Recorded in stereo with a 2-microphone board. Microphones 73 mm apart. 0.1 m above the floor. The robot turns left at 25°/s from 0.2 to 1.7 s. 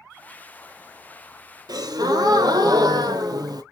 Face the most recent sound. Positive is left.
turn(degrees=-65)  # may be behind; listen again after turning